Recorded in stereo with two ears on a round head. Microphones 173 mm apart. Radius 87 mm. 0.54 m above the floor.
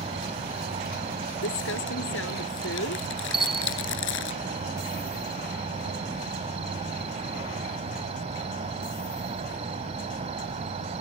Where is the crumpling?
75° left (ahead or behind).